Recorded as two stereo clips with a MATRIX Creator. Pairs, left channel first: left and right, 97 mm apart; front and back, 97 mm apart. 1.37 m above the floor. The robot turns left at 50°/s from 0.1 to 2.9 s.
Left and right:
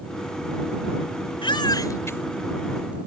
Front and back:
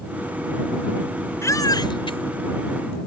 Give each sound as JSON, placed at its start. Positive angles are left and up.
{"t": 1.4, "sound": "a baby crying", "azimuth_deg": 60}